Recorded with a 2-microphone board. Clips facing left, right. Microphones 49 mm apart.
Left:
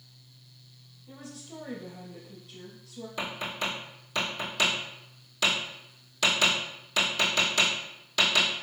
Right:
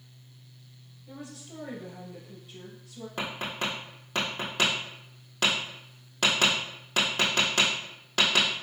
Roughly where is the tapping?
Right.